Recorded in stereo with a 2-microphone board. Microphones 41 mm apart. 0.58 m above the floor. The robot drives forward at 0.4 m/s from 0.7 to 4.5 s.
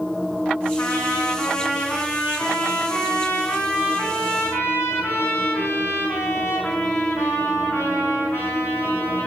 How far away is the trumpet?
About 5 m.